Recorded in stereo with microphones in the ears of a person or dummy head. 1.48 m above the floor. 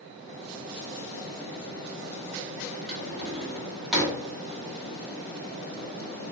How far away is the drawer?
About 1.8 m.